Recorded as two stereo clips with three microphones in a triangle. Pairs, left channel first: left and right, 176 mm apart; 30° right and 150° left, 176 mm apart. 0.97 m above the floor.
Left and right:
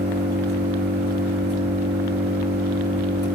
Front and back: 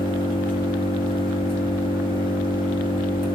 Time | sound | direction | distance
0.0 | an engine running | 90° right | 2 m